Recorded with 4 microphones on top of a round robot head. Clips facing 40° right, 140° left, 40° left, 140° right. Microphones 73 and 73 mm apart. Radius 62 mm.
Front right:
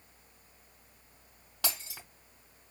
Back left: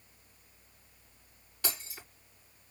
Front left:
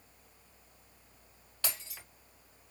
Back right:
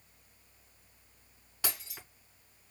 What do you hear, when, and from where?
1.6 s breaking glass: 60° right, 3.5 m